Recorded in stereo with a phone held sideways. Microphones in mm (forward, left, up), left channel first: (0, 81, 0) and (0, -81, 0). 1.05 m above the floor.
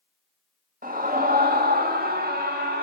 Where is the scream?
60° right (ahead or behind), 1.9 m; by 2.8 s 75° right (ahead or behind), 2.5 m.